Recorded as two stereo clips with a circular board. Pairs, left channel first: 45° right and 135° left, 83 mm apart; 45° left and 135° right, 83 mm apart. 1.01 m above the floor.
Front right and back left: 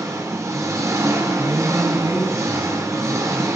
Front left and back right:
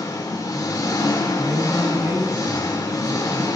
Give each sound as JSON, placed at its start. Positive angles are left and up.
{"t": 0.0, "sound": "an engine running", "azimuth_deg": 85, "distance_m": 2.0}
{"t": 1.4, "sound": "a man speaking", "azimuth_deg": 175, "distance_m": 6.5}